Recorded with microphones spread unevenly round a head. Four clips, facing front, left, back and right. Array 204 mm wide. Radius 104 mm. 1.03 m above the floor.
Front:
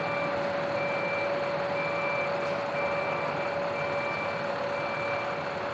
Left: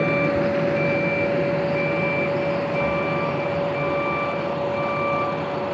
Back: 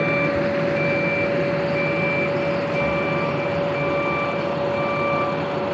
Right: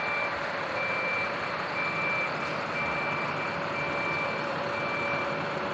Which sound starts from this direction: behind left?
A vehicle, at 0.0 s.